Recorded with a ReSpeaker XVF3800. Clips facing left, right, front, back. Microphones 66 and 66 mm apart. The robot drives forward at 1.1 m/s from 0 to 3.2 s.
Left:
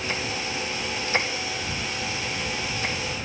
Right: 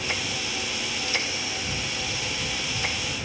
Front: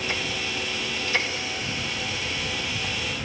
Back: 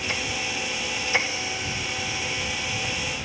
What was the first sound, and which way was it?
Only background noise.